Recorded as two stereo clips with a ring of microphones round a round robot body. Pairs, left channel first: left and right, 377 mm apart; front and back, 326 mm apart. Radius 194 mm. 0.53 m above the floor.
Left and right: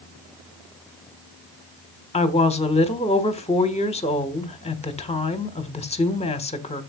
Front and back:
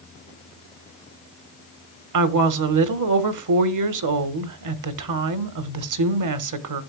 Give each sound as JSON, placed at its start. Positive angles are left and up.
{"t": 2.1, "sound": "a woman speaking", "azimuth_deg": 165, "distance_m": 1.4}